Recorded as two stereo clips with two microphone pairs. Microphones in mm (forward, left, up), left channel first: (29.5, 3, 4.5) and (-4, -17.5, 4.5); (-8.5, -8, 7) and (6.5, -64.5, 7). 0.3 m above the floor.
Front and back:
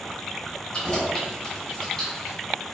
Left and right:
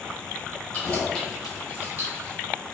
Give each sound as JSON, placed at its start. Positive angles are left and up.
{"t": 0.7, "sound": "keys jangling", "azimuth_deg": 75, "distance_m": 0.8}